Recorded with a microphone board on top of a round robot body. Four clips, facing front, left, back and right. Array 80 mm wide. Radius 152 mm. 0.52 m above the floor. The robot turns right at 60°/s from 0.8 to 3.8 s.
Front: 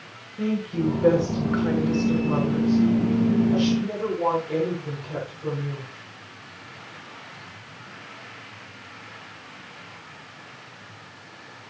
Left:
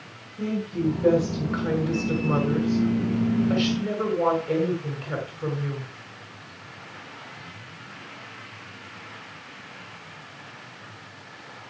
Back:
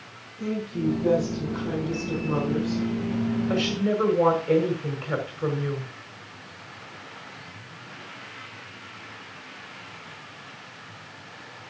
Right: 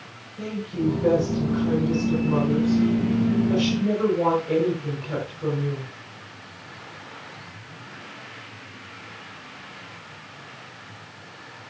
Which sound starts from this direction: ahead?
A woman speaking, at 0.4 s.